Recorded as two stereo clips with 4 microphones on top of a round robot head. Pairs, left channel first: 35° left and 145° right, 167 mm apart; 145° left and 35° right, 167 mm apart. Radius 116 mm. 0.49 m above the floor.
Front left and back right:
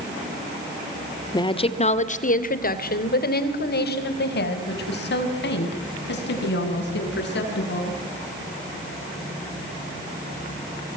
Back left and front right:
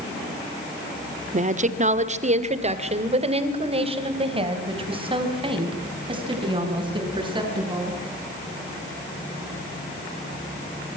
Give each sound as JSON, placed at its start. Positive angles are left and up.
{"t": 1.3, "sound": "a woman speaking", "azimuth_deg": -20, "distance_m": 1.7}